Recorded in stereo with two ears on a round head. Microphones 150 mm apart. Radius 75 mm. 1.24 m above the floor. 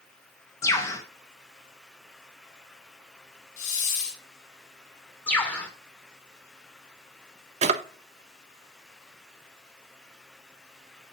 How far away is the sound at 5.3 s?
About 1.5 m.